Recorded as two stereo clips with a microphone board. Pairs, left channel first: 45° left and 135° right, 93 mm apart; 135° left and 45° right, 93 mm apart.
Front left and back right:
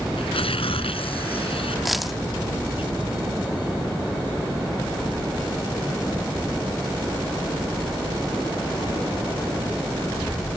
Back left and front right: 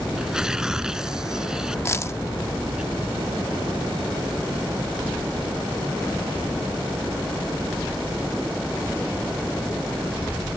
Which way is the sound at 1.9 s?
135° left.